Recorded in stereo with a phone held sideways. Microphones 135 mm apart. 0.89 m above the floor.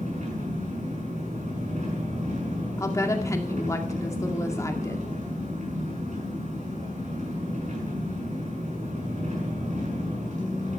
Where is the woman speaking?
20° left (ahead or behind), 2 m.